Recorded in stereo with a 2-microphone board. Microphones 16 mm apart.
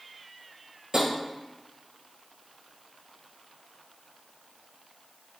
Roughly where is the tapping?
Right.